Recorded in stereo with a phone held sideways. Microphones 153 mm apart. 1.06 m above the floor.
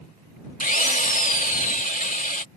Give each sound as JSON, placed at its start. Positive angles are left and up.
{"t": 0.6, "sound": "a drill", "side_deg": 65}